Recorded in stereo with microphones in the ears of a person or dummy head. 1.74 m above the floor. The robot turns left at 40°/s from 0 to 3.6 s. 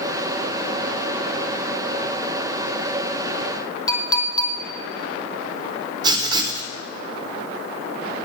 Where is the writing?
20° right (ahead or behind), 1.1 m.